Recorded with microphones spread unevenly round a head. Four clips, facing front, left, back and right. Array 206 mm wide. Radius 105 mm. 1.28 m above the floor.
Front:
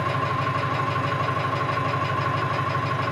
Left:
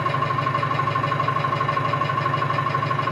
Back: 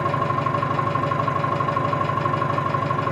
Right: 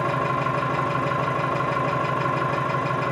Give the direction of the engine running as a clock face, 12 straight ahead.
5 o'clock.